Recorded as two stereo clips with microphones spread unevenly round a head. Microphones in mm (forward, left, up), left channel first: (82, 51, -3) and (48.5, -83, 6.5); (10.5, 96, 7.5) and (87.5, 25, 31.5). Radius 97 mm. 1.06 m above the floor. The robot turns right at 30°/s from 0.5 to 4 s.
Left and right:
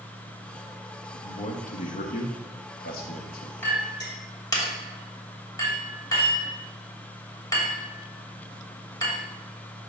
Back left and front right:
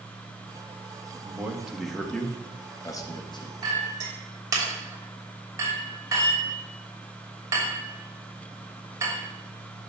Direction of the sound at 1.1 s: 30° left.